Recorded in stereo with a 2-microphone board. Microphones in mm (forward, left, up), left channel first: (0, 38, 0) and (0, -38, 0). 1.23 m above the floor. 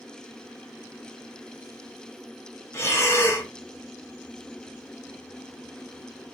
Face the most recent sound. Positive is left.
turn(degrees=35)  # may be behind; listen again after turning